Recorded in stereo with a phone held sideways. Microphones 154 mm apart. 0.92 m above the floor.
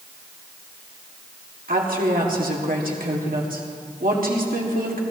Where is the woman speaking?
75° right (ahead or behind), 1.9 m.